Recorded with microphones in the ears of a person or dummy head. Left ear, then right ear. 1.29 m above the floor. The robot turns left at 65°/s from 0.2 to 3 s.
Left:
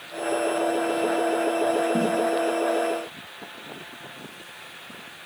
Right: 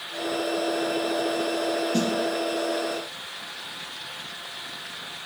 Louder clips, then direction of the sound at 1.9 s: Left 1 dB; 85° right.